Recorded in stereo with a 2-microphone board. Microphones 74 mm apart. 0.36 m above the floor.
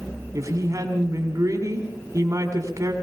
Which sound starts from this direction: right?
A woman speaking, at 0.3 s.